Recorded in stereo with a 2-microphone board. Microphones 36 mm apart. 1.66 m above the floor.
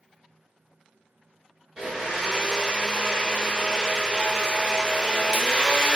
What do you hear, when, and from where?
1.8 s a blender: 20° right (ahead or behind), 0.7 m